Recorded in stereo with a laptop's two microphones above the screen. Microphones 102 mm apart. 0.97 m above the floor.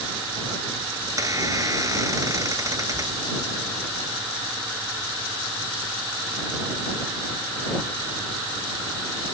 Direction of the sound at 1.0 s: 35° right (ahead or behind).